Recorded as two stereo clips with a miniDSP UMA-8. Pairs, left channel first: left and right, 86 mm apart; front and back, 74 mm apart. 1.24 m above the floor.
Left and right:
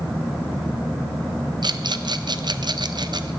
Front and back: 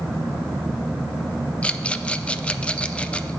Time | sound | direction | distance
1.6 | a rattle | 75° right | 0.5 m